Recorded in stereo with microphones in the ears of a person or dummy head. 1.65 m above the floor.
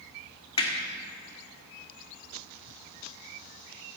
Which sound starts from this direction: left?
Hammering, at 0.6 s.